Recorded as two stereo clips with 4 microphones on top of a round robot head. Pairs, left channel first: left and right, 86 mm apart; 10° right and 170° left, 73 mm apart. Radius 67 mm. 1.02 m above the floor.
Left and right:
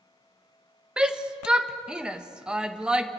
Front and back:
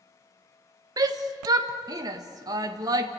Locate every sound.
1.0 s a shout: 170° right, 1.4 m